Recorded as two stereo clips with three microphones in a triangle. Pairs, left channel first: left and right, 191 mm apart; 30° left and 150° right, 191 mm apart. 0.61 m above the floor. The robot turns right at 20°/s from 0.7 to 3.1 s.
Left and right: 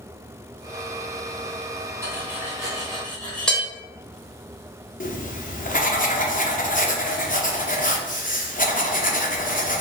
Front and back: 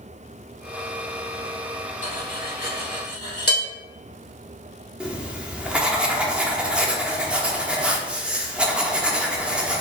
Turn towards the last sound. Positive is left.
turn(degrees=125)